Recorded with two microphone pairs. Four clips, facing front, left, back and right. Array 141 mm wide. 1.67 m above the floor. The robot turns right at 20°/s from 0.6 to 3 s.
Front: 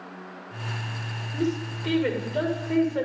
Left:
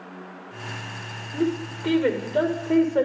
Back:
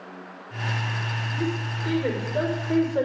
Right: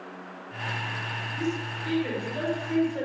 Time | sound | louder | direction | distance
1.3 | a woman speaking | left 7 dB, front 3 dB | 80° left | 6 m